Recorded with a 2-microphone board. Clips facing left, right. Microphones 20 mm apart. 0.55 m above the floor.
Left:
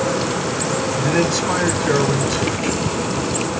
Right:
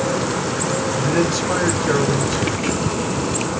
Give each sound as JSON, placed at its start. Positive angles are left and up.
{"t": 1.0, "sound": "a man speaking", "side_deg": 55, "distance_m": 2.0}